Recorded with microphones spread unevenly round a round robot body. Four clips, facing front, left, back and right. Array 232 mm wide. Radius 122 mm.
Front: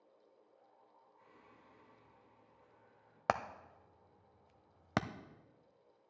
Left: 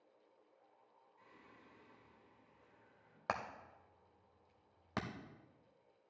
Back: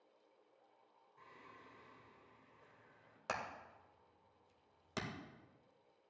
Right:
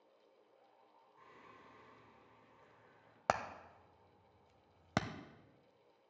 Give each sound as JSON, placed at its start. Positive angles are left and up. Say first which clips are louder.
{"t": 1.2, "sound": "singing", "louder": "right 4 dB, back 5 dB", "azimuth_deg": -140, "distance_m": 4.0}
{"t": 3.3, "sound": "hammering", "louder": "right 5 dB, front 9 dB", "azimuth_deg": -40, "distance_m": 0.6}